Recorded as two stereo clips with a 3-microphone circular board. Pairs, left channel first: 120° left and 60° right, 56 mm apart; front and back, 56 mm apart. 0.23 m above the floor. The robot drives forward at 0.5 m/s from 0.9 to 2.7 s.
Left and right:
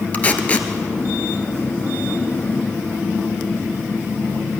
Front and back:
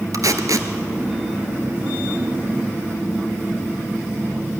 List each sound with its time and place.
0.1 s tape being pulled: straight behind, 1.4 m